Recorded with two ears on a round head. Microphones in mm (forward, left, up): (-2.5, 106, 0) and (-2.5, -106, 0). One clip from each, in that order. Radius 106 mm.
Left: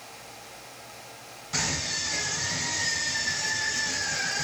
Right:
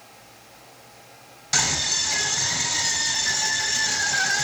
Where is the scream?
60° right (ahead or behind), 3 m.